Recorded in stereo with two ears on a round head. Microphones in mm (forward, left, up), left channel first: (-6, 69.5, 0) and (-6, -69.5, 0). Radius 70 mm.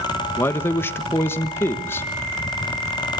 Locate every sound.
0.4 s a man speaking: 15° left (ahead or behind), 1.3 m